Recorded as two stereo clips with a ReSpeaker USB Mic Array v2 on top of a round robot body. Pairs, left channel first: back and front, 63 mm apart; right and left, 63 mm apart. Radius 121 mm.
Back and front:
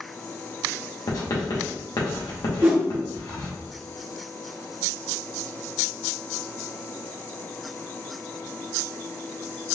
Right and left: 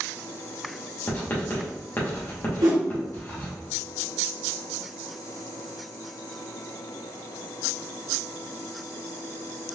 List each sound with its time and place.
1.1 s writing: 150° right, 1.2 m
2.6 s a whoosh: 60° left, 0.7 m